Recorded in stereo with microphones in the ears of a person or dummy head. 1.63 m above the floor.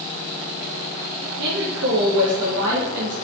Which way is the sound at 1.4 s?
70° right (ahead or behind).